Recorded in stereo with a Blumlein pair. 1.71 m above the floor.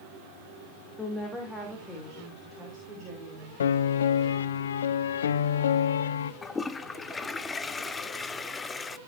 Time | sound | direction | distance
1.0 | a woman speaking | 5° left | 2.5 m
3.6 | a piano | 65° left | 0.7 m
6.4 | a toilet flushing | 15° left | 0.6 m